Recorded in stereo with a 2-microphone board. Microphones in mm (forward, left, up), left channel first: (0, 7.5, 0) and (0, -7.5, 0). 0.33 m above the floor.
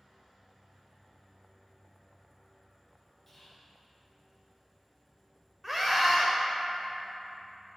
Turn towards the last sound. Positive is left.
turn(degrees=-15)  # may be behind; listen again after turning